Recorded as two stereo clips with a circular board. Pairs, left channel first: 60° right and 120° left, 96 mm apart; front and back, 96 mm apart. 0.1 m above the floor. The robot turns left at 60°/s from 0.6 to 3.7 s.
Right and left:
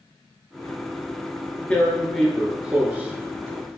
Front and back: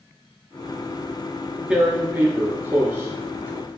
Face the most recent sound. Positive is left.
turn(degrees=125)